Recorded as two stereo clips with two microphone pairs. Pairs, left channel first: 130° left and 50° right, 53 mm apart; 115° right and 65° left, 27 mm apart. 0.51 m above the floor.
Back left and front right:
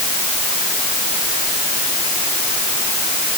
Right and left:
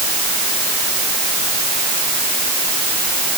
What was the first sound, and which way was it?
Only background noise.